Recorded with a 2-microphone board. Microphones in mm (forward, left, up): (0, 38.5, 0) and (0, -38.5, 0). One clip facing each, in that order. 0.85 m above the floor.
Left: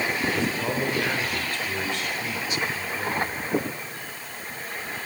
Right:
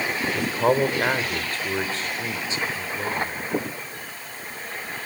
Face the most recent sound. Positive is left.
turn(degrees=-25)  # may be behind; listen again after turning